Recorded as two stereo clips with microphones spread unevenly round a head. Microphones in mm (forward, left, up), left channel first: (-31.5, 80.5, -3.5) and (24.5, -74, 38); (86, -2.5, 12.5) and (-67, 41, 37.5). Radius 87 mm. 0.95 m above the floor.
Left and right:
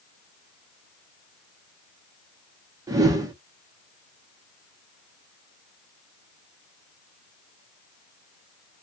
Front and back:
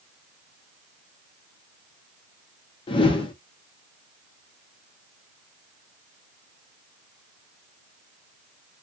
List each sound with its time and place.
2.9 s a whoosh: 10° left, 0.7 m